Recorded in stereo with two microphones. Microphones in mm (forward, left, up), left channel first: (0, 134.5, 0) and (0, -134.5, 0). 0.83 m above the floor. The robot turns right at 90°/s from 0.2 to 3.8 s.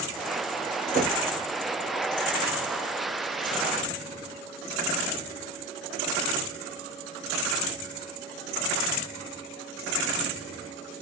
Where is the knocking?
25° right (ahead or behind), 2.5 m; by 1.2 s 45° right (ahead or behind), 2.5 m.